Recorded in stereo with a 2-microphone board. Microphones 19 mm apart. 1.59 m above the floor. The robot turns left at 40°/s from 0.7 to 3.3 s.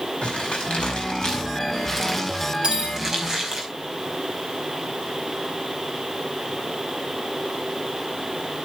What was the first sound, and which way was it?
Crumpling, 65° left (ahead or behind).